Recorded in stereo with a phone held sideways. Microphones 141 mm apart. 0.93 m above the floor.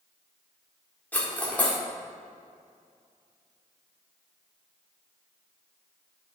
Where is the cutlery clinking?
10° left (ahead or behind), 1.2 m.